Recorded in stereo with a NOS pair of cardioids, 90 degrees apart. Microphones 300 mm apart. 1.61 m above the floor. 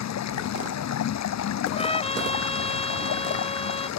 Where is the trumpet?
20° left.